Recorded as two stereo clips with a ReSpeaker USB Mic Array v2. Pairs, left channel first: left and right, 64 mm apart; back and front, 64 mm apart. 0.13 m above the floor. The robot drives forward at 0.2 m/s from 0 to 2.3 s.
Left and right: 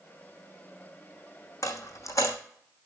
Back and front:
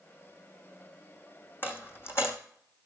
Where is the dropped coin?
125° left, 1.1 m; by 2.4 s 130° left, 1.1 m.